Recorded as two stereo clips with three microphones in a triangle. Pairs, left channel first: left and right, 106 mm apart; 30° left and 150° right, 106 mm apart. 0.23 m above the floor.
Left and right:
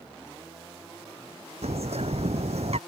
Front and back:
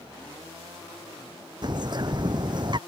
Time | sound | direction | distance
1.6 | a bird | 105° right | ?